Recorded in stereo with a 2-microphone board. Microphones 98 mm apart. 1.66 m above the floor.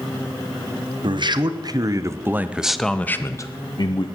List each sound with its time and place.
1.0 s a man speaking: 55° right (ahead or behind), 1.1 m; by 4.1 s 55° left (ahead or behind), 0.8 m